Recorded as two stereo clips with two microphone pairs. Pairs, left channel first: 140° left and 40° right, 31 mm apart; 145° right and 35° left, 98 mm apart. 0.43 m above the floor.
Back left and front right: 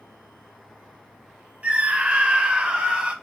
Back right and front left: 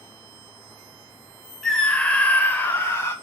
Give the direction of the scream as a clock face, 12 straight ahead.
2 o'clock.